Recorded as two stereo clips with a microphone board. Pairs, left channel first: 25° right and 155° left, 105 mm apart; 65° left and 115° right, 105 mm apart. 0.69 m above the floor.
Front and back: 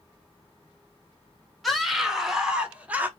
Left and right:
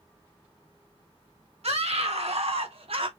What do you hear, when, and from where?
1.6 s a scream: 110° right, 2.5 m; by 3.1 s 130° right, 1.5 m